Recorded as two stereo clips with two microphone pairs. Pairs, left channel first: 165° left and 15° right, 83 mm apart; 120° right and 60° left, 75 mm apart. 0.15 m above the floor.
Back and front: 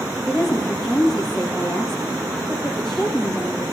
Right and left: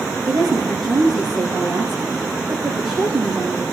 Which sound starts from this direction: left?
A woman speaking, at 0.3 s.